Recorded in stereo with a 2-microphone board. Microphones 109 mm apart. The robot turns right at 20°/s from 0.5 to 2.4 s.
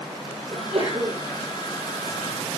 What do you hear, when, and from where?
0.5 s a sneeze: 75° right (ahead or behind), 8 m; by 1.2 s 65° right (ahead or behind), 8 m